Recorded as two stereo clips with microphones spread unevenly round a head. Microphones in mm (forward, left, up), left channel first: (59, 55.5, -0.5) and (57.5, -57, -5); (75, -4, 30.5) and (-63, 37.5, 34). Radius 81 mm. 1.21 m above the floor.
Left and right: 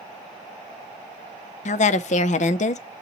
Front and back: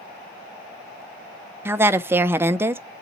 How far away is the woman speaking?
About 0.5 m.